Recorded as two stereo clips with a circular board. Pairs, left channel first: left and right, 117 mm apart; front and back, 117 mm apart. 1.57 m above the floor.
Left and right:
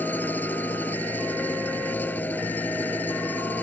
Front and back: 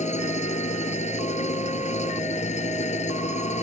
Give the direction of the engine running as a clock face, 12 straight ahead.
12 o'clock.